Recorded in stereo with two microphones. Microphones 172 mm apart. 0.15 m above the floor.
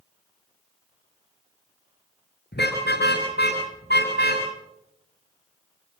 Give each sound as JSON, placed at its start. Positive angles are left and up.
{"t": 2.5, "sound": "a car horn", "side_deg": 85, "distance_m": 9.5}